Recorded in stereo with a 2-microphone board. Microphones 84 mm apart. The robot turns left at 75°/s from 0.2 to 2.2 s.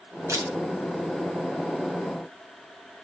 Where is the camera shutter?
35° right (ahead or behind), 2.5 m; by 0.5 s 50° right (ahead or behind), 2.5 m.